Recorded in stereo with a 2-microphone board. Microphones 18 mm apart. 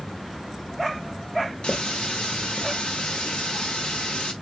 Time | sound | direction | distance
1.6 | a running tap | 70° left (ahead or behind) | 1.3 m